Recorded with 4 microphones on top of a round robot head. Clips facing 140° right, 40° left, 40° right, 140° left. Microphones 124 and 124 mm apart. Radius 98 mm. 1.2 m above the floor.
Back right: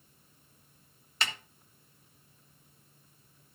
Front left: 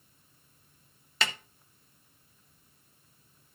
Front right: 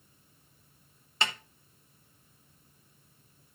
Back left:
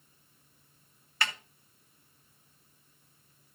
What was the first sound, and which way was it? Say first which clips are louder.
A snare drum: front left 3 dB, front right 2 dB; 30° left.